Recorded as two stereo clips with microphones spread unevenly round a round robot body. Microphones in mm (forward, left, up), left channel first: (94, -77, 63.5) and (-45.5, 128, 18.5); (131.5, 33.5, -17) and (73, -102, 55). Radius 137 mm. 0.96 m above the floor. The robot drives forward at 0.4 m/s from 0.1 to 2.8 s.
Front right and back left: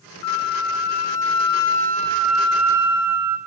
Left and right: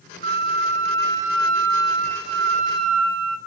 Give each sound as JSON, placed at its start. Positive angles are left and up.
{"t": 0.2, "sound": "a flute", "azimuth_deg": -85, "distance_m": 0.5}